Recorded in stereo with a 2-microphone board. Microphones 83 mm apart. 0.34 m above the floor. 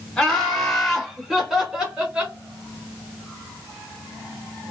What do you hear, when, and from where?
0.2 s laughter: 10° left (ahead or behind), 1.4 m; by 2.4 s 15° right (ahead or behind), 1.3 m